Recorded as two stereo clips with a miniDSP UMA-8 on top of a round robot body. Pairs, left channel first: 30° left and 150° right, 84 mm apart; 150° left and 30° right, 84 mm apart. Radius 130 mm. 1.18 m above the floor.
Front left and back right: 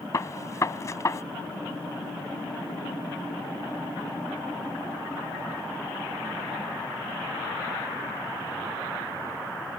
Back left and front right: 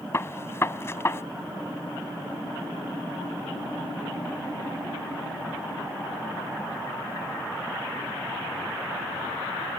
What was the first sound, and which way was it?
A gunshot, 85° left.